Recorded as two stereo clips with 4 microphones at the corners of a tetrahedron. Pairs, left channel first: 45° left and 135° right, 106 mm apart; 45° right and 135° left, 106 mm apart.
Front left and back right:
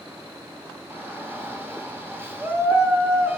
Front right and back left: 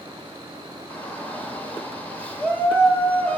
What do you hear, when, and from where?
0.9 s a shout: 95° right, 1.0 m